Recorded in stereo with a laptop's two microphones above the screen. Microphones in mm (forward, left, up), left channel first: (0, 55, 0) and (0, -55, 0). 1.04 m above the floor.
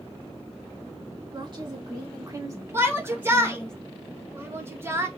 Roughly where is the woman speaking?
Right.